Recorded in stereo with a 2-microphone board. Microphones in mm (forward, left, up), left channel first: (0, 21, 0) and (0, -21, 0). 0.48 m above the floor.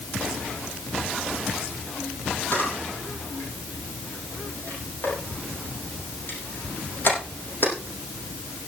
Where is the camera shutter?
50° left (ahead or behind), 7 m.